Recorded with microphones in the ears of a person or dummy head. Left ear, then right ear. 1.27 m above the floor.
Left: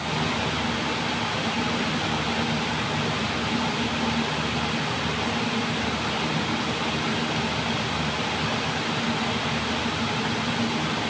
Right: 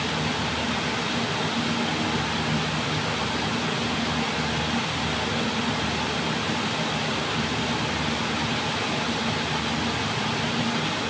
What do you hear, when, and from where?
Only background noise.